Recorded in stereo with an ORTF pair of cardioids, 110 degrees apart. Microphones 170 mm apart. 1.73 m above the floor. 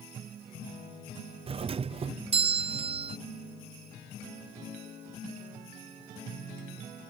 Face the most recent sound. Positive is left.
turn(degrees=-35)